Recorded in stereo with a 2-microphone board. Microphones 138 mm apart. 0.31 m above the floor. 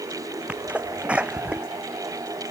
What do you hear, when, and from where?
0.5 s a sneeze: 10° right (ahead or behind)